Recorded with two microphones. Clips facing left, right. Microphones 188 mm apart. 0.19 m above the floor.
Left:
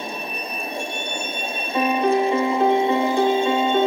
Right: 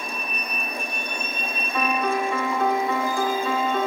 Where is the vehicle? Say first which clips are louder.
Left 3 dB; 25° left (ahead or behind).